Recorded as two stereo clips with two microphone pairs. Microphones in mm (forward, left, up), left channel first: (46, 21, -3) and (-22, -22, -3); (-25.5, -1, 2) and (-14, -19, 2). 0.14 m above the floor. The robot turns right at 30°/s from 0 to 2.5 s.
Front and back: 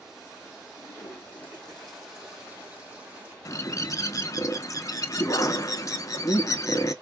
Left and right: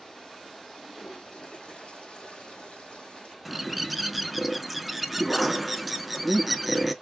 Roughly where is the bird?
Ahead left.